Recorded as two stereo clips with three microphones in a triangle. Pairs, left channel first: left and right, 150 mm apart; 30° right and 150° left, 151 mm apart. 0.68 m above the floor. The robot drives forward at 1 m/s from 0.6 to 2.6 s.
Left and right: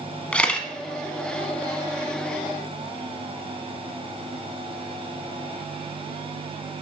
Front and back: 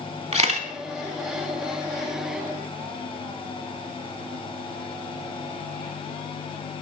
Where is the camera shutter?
170° left, 0.7 m.